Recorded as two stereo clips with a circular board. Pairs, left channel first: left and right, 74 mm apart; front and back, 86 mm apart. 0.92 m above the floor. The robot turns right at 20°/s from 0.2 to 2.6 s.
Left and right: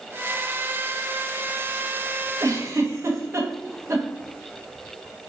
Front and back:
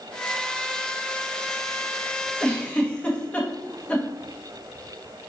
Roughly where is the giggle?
Right.